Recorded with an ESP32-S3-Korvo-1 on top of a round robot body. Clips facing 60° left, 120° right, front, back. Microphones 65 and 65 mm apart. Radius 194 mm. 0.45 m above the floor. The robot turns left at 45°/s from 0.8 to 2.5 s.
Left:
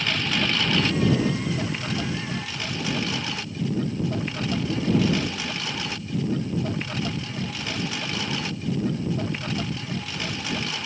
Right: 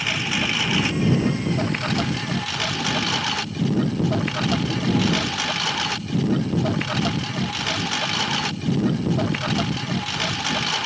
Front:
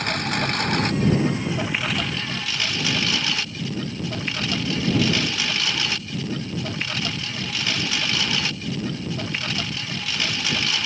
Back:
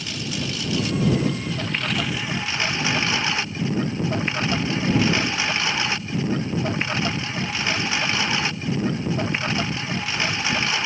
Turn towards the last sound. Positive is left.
turn(degrees=-115)